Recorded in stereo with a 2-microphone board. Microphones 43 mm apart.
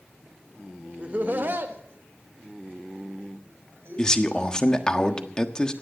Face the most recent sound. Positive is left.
turn(degrees=20)  # may be behind; listen again after turning